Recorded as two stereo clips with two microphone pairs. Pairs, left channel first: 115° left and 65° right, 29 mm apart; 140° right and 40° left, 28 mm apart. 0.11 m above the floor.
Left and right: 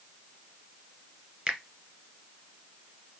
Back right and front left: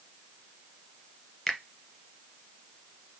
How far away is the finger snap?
About 1.7 m.